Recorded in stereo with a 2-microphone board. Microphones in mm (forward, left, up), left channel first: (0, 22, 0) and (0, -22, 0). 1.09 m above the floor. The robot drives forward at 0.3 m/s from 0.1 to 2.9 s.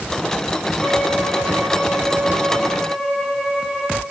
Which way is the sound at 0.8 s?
Centre (ahead or behind).